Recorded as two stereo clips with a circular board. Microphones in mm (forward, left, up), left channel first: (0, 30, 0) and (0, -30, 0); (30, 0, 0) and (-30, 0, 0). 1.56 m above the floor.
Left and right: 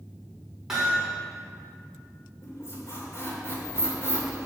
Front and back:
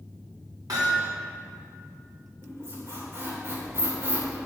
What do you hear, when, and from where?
0.7 s hammering: 170° right, 4.5 m
2.4 s a squeak: 135° left, 2.5 m